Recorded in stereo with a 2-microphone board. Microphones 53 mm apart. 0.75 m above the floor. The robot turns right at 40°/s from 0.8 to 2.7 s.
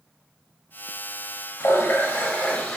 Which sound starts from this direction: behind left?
A running tap, at 1.6 s.